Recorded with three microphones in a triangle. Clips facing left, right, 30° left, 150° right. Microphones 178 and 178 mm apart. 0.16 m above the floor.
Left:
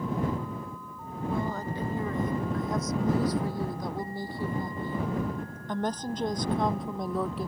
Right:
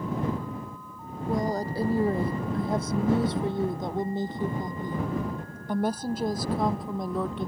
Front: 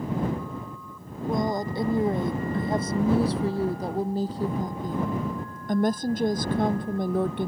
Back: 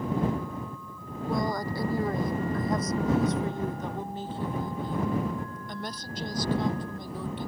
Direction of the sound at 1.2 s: 40° right.